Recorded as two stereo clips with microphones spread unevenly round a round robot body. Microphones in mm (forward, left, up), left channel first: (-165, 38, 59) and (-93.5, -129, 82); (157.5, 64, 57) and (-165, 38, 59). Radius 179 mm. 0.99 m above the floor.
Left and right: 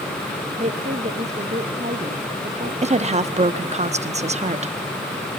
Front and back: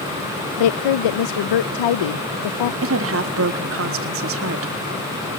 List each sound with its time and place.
0.6 s a woman speaking: 5° right, 0.6 m
2.8 s a woman speaking: 120° right, 1.5 m